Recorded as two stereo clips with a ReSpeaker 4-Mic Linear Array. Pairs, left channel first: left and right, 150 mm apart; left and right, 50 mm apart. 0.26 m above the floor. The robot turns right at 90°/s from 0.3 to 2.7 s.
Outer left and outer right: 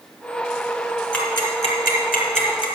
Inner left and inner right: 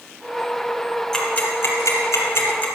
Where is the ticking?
10° left (ahead or behind), 2.5 m; by 2.7 s 30° left (ahead or behind), 2.5 m.